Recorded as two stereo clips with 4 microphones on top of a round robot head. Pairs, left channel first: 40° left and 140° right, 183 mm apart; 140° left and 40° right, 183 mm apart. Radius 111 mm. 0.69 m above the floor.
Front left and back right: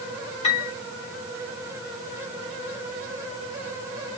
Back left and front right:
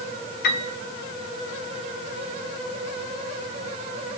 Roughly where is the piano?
Left.